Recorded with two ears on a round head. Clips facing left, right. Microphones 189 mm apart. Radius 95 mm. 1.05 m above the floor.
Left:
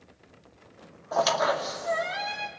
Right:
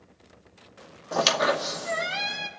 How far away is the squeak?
About 1.0 m.